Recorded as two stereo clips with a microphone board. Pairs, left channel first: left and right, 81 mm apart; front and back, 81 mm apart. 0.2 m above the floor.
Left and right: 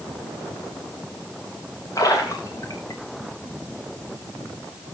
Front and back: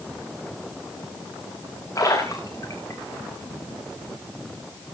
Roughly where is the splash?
Ahead left.